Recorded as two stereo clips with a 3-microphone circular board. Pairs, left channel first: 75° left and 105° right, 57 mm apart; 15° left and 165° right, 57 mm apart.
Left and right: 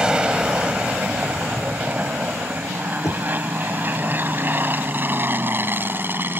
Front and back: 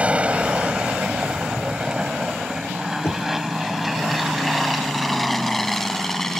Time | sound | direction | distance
0.0 | an aircraft | 155° right | ?
3.0 | knocking | 55° left | ?